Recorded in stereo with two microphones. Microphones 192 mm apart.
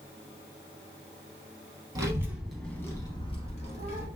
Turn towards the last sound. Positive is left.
turn(degrees=40)  # may be behind; listen again after turning